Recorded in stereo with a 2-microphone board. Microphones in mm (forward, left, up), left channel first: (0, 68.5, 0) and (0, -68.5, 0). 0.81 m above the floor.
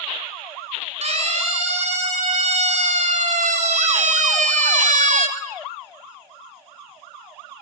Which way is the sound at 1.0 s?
55° right (ahead or behind).